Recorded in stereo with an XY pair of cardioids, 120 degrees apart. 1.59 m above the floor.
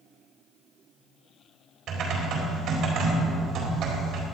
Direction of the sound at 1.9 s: 65° right.